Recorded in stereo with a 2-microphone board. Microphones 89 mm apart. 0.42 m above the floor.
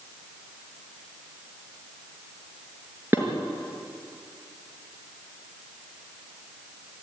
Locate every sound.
3.1 s dishes clattering: 25° right (ahead or behind), 5 m